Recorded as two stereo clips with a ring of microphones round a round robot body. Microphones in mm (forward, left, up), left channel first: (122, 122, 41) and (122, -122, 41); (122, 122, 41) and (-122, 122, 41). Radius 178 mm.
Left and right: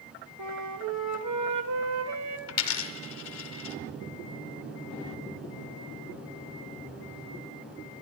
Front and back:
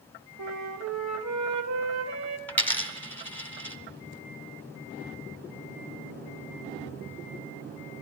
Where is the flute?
130° right, 0.8 m.